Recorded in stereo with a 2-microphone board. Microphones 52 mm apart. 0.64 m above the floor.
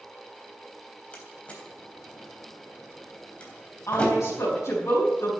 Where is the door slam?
25° left (ahead or behind), 3.5 m.